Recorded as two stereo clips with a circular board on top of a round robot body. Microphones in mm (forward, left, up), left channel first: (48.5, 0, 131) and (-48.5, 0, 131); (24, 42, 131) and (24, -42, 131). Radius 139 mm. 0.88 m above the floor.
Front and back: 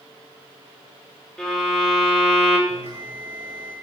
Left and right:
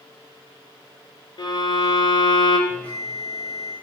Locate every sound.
1.4 s a violin: 80° left, 1.3 m
2.7 s a bell: 165° left, 1.7 m